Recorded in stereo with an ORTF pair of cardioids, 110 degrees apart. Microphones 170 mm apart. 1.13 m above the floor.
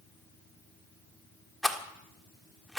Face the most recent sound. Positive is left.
turn(degrees=0)